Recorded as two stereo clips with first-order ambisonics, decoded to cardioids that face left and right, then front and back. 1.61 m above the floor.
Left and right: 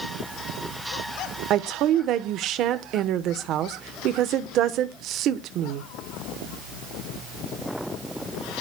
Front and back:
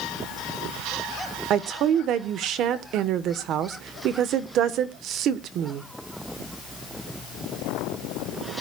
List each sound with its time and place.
1.5 s a woman speaking: 135° right, 1.0 m